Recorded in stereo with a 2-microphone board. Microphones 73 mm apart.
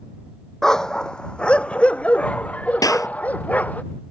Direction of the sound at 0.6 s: 5° left (ahead or behind).